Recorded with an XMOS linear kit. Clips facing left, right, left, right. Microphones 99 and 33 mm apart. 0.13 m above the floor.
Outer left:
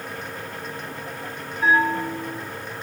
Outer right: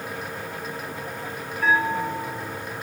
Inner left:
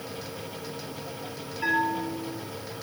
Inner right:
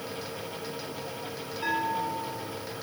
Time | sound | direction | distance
1.6 | a bell | 25° left (ahead or behind) | 3 m